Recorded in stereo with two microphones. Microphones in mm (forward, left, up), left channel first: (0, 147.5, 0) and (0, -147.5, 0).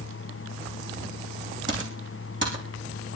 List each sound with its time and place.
1.7 s typing on a keyboard: 45° right (ahead or behind), 7 m